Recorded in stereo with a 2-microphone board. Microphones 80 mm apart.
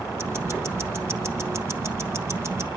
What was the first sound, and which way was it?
Ticking, 35° right (ahead or behind).